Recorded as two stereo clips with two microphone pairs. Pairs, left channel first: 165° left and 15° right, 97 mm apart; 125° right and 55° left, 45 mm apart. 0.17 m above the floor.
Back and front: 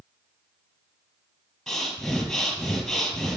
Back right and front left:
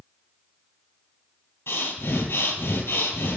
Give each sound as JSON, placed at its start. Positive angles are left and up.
{"t": 1.7, "sound": "breathing", "azimuth_deg": -110, "distance_m": 2.0}